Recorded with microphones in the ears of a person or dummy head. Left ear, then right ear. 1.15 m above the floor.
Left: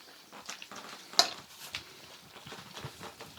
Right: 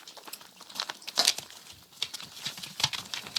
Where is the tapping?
15° left (ahead or behind), 0.9 m.